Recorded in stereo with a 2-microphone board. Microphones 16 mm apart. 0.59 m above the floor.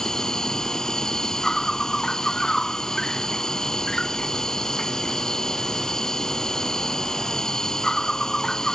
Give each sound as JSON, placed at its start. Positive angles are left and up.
{"t": 0.0, "sound": "an insect", "side_deg": 45}